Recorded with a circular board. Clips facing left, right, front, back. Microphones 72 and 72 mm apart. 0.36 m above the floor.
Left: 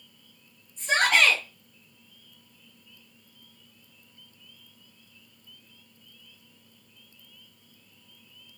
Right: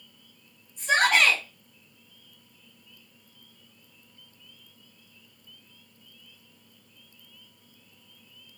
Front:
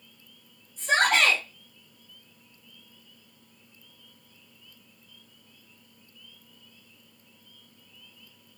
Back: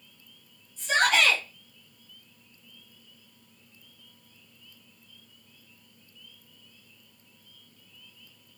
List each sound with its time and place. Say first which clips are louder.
0.8 s a shout: right 1 dB, front 1 dB; 20° right, 3 m